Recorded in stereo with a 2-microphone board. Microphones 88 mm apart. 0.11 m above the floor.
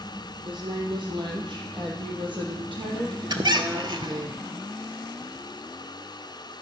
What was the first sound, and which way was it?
A woman speaking, 65° right (ahead or behind).